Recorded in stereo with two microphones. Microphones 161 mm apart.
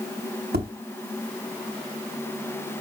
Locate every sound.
0.5 s tapping: 85° right, 3 m